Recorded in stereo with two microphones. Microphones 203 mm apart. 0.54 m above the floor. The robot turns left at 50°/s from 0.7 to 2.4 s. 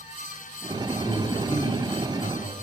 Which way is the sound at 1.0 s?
Straight behind.